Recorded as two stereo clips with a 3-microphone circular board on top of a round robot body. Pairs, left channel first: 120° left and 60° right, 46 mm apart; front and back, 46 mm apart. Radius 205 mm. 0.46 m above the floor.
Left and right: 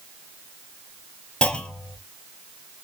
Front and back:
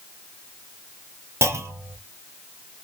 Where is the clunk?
170° right, 0.9 m.